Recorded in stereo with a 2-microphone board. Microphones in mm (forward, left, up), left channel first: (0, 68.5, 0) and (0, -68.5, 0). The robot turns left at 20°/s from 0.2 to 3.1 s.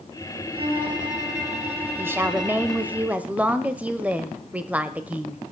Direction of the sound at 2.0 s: 15° right (ahead or behind).